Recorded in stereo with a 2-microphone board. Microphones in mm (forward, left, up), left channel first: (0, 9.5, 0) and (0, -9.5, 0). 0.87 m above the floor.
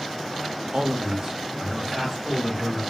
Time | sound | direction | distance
0.7 | a man speaking | 50° right (ahead or behind) | 0.6 m